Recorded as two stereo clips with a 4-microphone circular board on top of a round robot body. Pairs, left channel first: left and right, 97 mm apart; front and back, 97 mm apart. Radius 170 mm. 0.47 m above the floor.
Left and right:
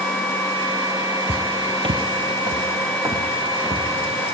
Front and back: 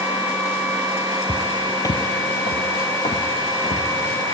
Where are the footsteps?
125° right, 0.6 m; by 3.9 s 25° right, 2.5 m.